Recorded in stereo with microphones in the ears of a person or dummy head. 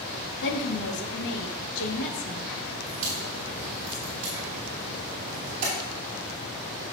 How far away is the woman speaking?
About 1.8 m.